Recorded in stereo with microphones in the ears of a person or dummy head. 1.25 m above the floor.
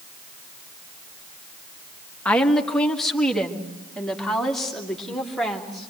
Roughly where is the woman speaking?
Centre.